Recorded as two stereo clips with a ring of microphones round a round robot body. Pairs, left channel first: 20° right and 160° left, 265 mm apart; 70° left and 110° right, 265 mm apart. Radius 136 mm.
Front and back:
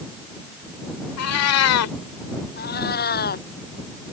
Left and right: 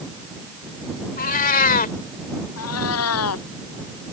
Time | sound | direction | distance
1.2 | a cat meowing | 10° left | ?
2.6 | a cat meowing | 35° left | ?